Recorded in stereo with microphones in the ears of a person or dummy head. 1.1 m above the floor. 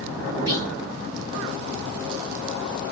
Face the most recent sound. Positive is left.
turn(degrees=-15)  # may be behind; listen again after turning